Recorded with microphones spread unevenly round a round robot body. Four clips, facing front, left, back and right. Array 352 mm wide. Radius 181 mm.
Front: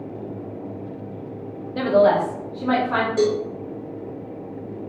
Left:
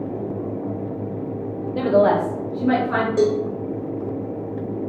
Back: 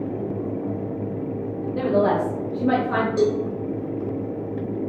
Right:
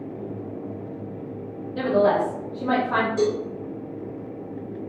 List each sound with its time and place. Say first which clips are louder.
1.8 s a woman speaking: left 3 dB, front 4 dB; 55° left, 0.8 m; by 3.1 s 175° right, 1.0 m
3.2 s a cowbell: left 7 dB, front 1 dB; 80° left, 0.8 m